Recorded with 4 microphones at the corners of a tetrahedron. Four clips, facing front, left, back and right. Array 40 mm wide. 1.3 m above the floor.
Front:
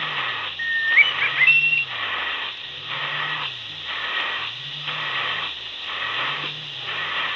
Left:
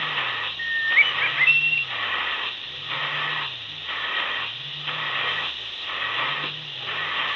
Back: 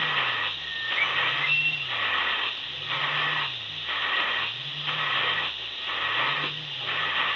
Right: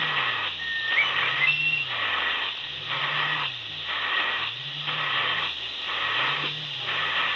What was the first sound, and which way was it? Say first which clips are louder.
A bird: left 7 dB, front 10 dB; 25° left.